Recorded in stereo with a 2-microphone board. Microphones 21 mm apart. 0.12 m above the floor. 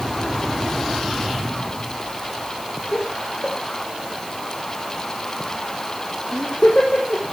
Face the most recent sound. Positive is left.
turn(degrees=70)  # may be behind; listen again after turning